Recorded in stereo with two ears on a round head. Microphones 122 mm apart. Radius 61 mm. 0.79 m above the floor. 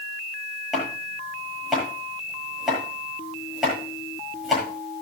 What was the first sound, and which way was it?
Chopping, 5° right (ahead or behind).